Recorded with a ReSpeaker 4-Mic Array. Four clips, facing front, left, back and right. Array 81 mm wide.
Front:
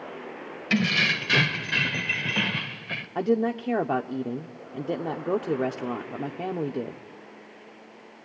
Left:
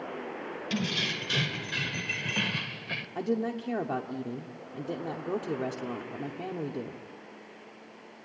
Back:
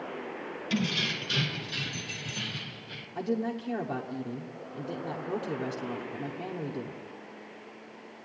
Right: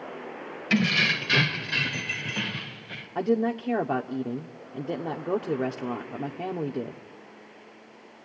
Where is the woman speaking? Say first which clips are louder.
Right 6 dB, front 7 dB; 30° right, 1.1 m.